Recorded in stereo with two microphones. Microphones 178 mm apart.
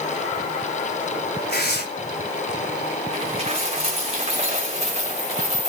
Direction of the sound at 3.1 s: 35° right (ahead or behind).